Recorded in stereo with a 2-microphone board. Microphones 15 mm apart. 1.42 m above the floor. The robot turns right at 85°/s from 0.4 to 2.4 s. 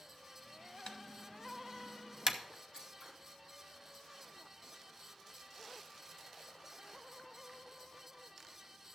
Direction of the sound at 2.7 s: 60° right (ahead or behind).